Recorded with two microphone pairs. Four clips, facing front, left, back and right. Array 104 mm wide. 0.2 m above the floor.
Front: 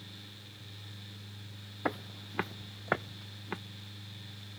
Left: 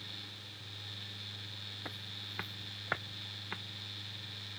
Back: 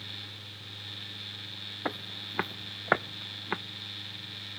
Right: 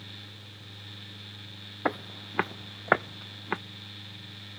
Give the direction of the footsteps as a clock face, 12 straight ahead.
3 o'clock.